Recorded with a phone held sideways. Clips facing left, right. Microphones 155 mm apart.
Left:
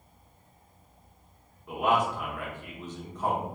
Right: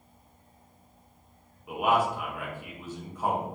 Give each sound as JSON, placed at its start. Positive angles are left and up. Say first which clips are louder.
{"t": 1.7, "sound": "a man speaking", "louder": "right 1 dB", "side_deg": -10, "distance_m": 0.8}